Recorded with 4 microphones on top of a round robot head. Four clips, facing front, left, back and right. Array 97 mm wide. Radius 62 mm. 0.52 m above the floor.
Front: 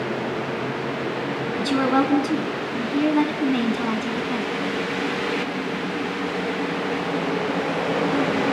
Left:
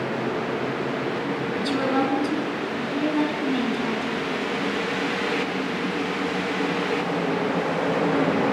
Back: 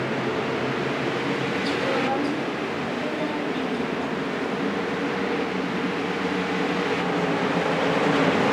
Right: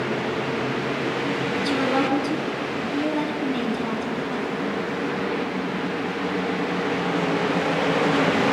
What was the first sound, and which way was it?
A woman speaking, 10° right.